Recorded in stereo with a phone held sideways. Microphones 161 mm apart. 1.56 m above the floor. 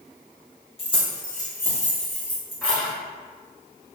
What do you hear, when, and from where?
0.8 s keys jangling: 35° left (ahead or behind), 0.7 m; by 2.9 s 5° left (ahead or behind), 2 m